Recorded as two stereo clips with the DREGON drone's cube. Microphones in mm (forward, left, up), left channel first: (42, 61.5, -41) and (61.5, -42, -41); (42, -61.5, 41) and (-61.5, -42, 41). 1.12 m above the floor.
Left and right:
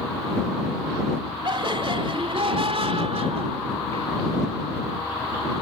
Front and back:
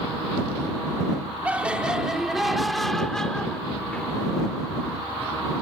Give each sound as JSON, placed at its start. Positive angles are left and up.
{"t": 1.4, "sound": "laughter", "azimuth_deg": -115}